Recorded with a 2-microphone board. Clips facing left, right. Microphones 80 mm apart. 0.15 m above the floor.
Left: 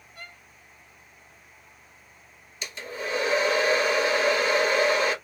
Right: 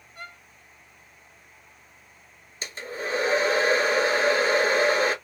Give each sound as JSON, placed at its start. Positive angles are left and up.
{"t": 0.1, "sound": "a violin", "side_deg": -20, "distance_m": 1.3}
{"t": 2.6, "sound": "a hair dryer", "side_deg": -35, "distance_m": 0.9}